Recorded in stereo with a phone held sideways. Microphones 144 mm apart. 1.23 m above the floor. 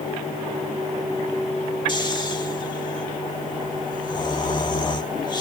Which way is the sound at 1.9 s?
30° left (ahead or behind).